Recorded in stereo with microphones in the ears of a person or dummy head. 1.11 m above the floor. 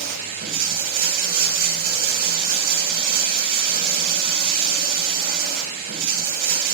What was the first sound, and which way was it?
Running water, 50° right (ahead or behind).